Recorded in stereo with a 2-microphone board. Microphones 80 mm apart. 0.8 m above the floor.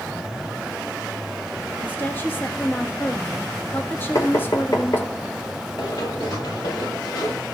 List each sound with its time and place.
1.8 s a woman speaking: 25° left (ahead or behind), 1.5 m
4.2 s knocking: 50° left (ahead or behind), 3 m
5.8 s running footsteps: 65° left (ahead or behind), 7.5 m; by 7.4 s 60° left (ahead or behind), 8.5 m